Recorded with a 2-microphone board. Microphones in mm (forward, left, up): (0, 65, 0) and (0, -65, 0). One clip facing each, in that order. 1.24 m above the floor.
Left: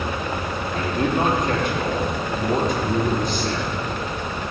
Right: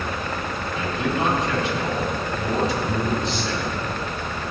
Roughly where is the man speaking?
Left.